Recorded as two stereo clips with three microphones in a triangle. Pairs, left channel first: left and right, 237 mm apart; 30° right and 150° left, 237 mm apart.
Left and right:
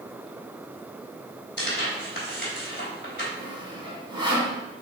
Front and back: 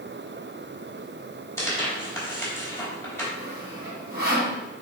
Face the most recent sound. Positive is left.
turn(degrees=-160)